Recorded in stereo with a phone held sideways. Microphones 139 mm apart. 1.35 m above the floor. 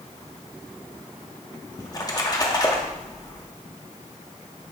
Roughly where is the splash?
Left.